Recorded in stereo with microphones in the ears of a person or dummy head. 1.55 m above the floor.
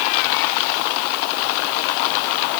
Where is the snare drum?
No snare drum in this recording.